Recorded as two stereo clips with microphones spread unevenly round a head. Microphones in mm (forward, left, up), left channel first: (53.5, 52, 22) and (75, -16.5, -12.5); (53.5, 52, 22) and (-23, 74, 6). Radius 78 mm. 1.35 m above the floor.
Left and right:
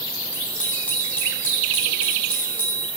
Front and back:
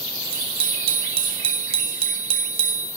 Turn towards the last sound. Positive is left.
turn(degrees=-175)